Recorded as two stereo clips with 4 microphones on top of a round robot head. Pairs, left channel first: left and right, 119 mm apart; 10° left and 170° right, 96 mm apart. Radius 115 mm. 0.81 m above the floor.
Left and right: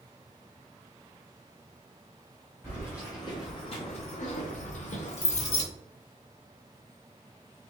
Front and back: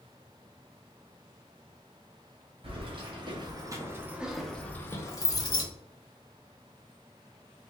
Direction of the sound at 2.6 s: 160° left.